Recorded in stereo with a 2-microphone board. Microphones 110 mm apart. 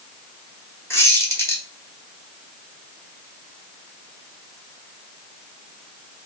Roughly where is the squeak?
Left.